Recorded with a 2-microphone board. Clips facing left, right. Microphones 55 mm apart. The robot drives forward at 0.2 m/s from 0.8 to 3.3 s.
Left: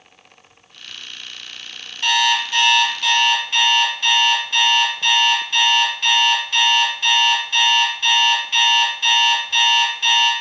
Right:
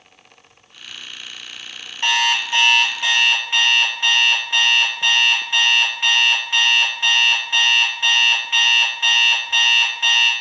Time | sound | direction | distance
2.0 | an alarm clock | 30° right (ahead or behind) | 0.5 m